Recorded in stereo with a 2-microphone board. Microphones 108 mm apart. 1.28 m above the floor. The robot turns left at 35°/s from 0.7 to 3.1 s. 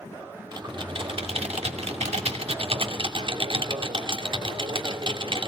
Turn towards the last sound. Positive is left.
turn(degrees=-130)